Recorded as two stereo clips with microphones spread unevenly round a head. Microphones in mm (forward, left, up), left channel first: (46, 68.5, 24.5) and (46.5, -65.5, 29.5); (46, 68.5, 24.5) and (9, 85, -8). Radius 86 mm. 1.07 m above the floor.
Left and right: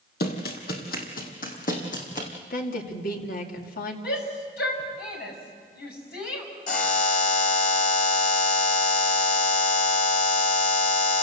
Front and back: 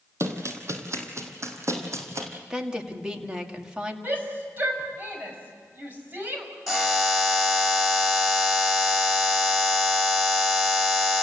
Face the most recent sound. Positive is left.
turn(degrees=70)